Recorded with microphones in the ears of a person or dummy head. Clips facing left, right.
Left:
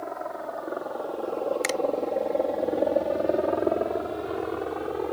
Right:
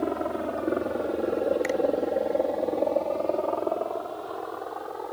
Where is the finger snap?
85° left.